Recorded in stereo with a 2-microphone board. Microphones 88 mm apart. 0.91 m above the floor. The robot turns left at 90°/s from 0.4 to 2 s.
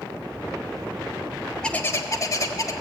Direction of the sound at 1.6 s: 170° left.